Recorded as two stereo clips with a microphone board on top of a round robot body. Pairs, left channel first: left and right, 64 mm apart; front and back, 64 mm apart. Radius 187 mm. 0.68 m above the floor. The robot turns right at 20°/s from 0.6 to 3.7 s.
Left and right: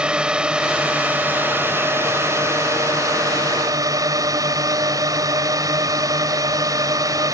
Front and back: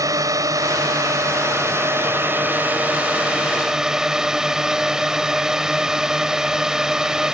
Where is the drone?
160° right; by 7.3 s 100° right.